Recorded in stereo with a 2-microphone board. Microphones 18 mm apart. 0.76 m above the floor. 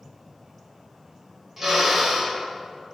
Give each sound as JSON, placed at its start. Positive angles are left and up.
{"t": 1.6, "sound": "a drill", "side_deg": -20, "distance_m": 2.5}